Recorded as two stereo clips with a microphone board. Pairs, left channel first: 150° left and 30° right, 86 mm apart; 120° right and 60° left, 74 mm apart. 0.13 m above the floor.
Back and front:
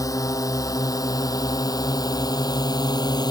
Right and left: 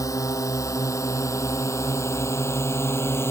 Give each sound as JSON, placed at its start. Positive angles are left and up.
{"t": 0.0, "sound": "a drone", "azimuth_deg": -165}